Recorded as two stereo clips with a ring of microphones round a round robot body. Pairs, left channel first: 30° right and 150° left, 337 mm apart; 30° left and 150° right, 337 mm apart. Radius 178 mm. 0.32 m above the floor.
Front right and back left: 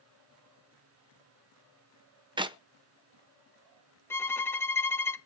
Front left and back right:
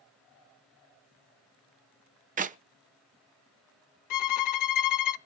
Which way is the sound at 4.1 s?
55° left.